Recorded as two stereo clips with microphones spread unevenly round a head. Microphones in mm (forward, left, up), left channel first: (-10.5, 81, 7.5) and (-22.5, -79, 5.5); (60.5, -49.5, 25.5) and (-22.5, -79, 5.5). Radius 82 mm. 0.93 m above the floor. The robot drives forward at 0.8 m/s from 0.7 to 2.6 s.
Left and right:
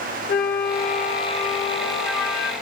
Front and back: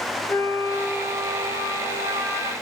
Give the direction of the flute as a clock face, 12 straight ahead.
9 o'clock.